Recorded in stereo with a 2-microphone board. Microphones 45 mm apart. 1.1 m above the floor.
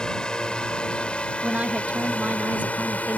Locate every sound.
0.0 s a drone: 15° left (ahead or behind); by 3.2 s 35° left (ahead or behind)
1.4 s a woman speaking: 35° right (ahead or behind)